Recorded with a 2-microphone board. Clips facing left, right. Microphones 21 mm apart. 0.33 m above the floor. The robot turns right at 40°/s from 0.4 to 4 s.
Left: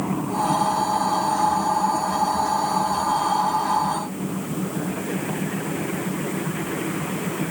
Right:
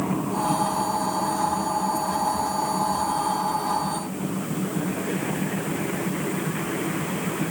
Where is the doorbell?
I don't hear a doorbell.